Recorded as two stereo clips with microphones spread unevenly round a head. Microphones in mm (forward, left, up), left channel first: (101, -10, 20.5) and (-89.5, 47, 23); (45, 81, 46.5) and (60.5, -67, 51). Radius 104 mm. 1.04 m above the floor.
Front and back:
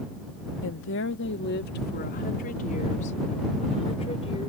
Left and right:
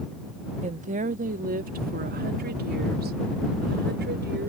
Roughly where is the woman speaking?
Ahead right.